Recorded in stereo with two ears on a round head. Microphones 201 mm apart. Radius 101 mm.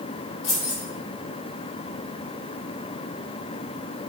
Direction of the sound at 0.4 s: 60° left (ahead or behind).